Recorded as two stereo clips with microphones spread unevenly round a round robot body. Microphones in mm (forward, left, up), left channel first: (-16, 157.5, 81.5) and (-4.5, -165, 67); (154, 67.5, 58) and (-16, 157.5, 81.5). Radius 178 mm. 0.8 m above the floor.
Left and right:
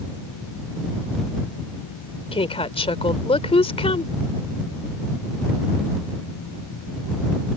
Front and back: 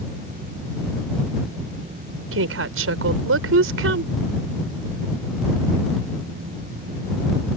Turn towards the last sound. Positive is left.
turn(degrees=165)